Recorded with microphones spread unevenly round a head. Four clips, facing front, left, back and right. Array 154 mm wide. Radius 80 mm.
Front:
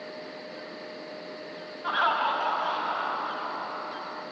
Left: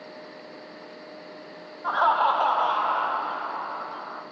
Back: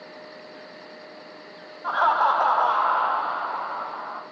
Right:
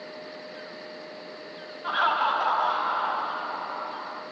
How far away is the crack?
No crack in this recording.